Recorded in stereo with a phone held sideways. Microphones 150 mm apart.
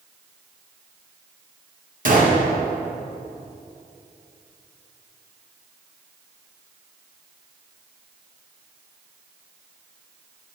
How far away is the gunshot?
About 1.5 m.